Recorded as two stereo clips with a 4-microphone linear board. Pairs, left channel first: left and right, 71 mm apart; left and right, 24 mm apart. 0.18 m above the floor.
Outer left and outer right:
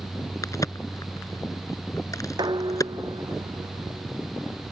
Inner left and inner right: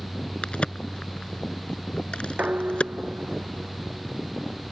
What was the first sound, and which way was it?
A crack, 50° left (ahead or behind).